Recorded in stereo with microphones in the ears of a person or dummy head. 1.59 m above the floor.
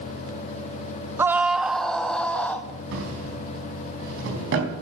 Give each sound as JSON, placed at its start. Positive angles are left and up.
{"t": 1.2, "sound": "a scream", "side_deg": -15, "distance_m": 0.6}
{"t": 2.9, "sound": "a drawer", "side_deg": -75, "distance_m": 4.5}